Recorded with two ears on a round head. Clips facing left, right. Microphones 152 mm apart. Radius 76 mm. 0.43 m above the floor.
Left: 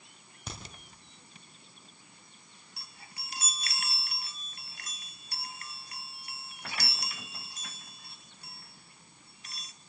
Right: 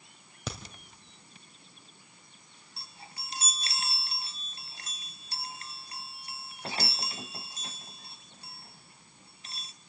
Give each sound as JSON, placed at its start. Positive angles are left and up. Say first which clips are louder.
{"t": 0.5, "sound": "a crack", "louder": "right 6 dB", "side_deg": -60, "distance_m": 3.0}
{"t": 2.8, "sound": "a chime", "louder": "right 4 dB", "side_deg": -25, "distance_m": 0.7}